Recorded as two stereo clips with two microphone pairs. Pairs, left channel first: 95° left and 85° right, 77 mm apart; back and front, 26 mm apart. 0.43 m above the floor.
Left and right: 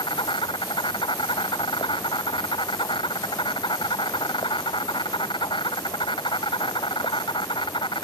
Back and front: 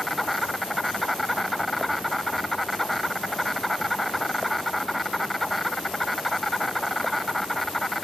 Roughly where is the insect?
Left.